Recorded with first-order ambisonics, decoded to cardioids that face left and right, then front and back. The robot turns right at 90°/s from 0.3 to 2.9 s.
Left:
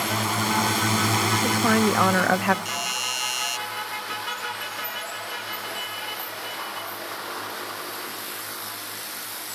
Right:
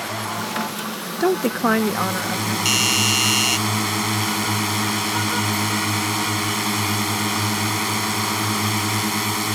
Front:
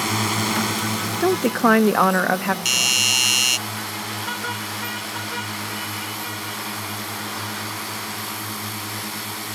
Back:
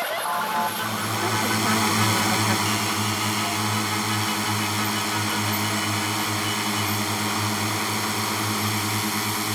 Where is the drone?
15° left; by 9.6 s 110° right.